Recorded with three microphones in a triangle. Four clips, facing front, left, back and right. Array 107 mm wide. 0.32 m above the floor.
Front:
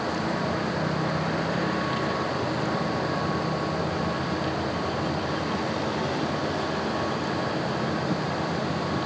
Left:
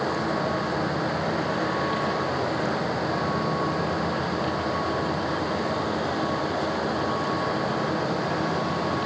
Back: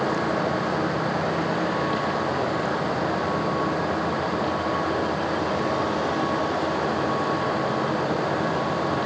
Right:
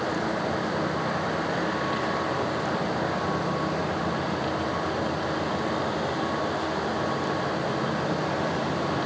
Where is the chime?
No chime in this recording.